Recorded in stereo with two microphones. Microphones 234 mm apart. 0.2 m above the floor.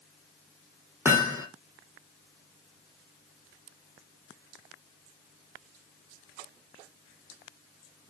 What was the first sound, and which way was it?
Hammering, 10° right (ahead or behind).